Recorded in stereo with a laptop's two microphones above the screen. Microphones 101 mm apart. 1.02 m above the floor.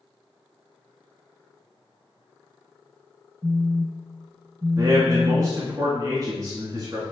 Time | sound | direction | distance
3.4 | a phone buzzing | 35° right (ahead or behind) | 0.9 m
4.8 | a man speaking | 35° right (ahead or behind) | 2 m